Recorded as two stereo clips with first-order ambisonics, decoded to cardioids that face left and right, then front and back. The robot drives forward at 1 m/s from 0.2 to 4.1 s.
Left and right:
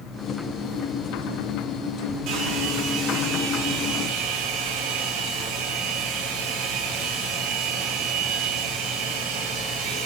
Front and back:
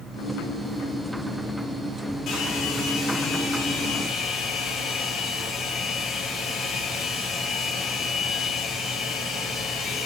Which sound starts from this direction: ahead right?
A hair dryer, at 2.3 s.